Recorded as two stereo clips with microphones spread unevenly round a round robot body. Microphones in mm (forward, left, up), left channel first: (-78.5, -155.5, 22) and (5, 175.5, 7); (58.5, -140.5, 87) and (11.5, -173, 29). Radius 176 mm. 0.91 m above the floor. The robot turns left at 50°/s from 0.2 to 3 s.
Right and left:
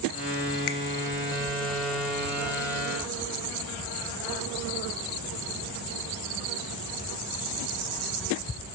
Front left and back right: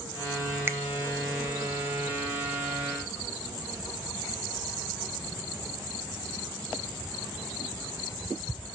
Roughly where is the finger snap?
Right.